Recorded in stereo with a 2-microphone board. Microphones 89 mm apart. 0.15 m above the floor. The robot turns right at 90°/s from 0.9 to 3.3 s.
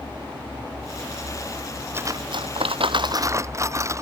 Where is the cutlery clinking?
155° right; by 4.0 s 35° right.